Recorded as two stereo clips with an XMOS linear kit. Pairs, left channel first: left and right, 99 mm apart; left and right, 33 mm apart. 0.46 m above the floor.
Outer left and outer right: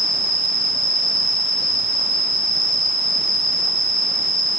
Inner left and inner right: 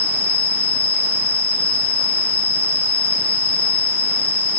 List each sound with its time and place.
0.0 s an insect: 40° left (ahead or behind), 2.5 m